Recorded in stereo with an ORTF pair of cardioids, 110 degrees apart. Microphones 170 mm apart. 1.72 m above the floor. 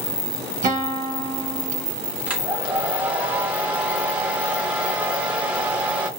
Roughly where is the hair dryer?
Ahead.